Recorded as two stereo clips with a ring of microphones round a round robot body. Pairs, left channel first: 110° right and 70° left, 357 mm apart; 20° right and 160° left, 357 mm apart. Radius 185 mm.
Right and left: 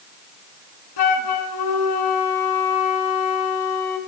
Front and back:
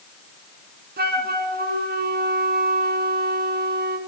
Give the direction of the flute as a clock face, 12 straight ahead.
5 o'clock.